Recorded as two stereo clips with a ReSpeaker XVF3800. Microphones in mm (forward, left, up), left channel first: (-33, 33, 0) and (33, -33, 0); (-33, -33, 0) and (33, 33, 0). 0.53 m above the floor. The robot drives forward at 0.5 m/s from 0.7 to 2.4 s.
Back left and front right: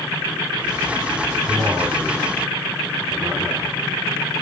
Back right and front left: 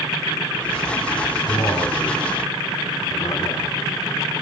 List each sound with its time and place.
1.5 s a man speaking: 95° right, 7 m; by 3.8 s 100° right, 7 m